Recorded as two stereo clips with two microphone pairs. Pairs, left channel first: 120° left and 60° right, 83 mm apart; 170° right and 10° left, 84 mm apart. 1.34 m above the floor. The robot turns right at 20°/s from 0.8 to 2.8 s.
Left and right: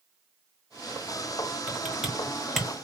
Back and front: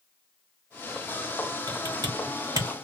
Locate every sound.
1.7 s typing on a keyboard: 10° left, 1.2 m; by 2.8 s 35° left, 1.2 m